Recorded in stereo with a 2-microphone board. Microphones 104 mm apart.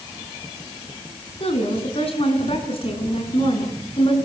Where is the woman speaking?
70° left (ahead or behind), 5 m; by 4.2 s 60° left (ahead or behind), 7 m.